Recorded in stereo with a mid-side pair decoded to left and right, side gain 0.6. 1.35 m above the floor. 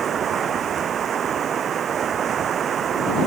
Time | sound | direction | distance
0.0 | running water | 40° right | ?